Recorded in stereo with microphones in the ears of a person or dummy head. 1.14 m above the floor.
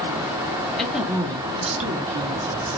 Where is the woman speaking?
5° left (ahead or behind), 0.9 m; by 2.8 s 60° right (ahead or behind), 1.4 m.